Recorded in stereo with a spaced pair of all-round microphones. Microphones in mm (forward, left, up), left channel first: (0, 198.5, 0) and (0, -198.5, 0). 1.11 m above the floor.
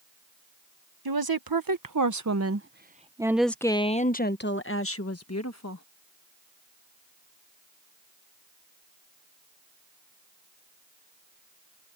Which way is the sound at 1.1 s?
65° right (ahead or behind).